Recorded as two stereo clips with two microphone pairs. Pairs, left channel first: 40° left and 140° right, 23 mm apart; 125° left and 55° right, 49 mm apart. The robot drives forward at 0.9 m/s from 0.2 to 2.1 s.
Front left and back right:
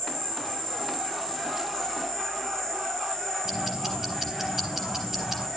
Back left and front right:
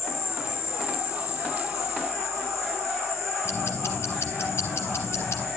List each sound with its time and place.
0.0 s an insect: 115° left, 8 m; by 5.6 s 125° left, 9 m
3.5 s ticking: 145° left, 3.5 m